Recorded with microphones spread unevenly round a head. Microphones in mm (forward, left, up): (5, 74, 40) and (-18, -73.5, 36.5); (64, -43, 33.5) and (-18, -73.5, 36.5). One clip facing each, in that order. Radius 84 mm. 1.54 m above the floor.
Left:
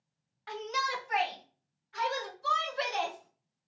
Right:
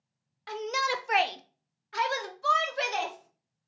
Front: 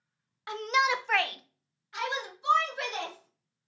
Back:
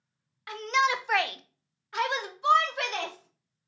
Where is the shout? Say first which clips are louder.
Right 4 dB, back 1 dB; 45° right, 0.6 m; by 3.7 s 145° right, 1.6 m.